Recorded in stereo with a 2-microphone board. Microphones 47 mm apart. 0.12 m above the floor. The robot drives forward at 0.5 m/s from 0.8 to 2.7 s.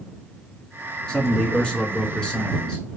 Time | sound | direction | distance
1.1 | a man speaking | 15° left (ahead or behind) | 1.3 m